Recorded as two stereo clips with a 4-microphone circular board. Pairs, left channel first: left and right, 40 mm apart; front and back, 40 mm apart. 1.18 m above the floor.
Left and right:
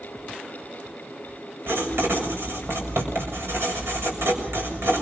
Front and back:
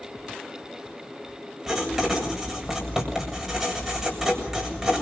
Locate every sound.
1.7 s writing: 95° right, 7 m